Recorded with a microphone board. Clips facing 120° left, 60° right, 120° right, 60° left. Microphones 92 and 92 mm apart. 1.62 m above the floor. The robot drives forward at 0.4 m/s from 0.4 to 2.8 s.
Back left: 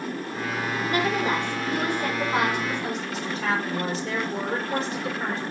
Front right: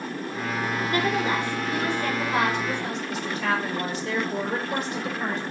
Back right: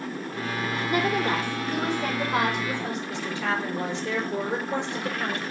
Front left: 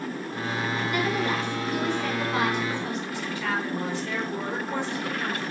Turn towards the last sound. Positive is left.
turn(degrees=175)